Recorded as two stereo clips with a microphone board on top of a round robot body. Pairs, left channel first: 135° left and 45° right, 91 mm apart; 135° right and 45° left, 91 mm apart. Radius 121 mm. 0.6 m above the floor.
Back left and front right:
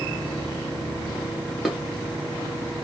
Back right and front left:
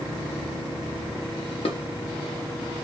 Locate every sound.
1.6 s dishes clattering: 130° right, 1.1 m